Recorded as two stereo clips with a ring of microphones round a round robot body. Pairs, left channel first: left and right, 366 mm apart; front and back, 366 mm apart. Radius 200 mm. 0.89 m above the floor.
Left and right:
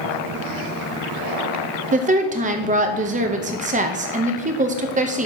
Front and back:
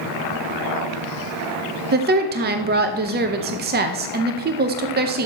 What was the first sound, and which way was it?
A woman speaking, 140° right.